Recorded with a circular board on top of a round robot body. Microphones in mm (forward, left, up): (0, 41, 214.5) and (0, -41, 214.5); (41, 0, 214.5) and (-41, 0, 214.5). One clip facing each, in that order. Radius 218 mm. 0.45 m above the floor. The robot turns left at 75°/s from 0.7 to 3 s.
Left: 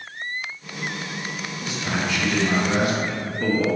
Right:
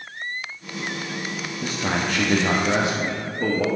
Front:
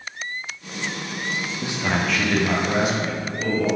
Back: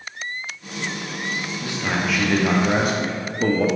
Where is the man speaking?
60° right, 1.5 m; by 3.7 s 160° right, 1.5 m.